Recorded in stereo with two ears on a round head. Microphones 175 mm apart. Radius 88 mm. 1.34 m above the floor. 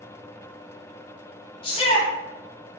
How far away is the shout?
About 0.9 m.